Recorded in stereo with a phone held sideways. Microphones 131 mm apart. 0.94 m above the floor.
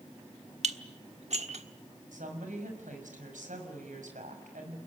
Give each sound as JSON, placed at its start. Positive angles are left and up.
{"t": 0.6, "sound": "dishes clattering", "side_deg": -60, "distance_m": 1.3}
{"t": 2.1, "sound": "a woman speaking", "side_deg": -85, "distance_m": 5.5}